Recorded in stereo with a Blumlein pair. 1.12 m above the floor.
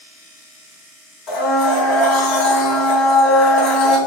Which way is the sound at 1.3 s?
40° left.